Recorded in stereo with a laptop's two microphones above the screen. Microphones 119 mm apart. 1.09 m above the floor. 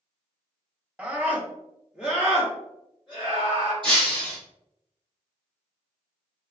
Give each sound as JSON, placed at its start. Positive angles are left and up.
{"t": 1.0, "sound": "a scream", "side_deg": -10, "distance_m": 0.8}
{"t": 3.8, "sound": "breaking glass", "side_deg": -45, "distance_m": 1.5}